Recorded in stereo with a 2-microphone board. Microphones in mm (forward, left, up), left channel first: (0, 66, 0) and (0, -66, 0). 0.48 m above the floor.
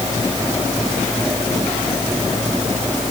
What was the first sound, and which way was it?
Only background noise.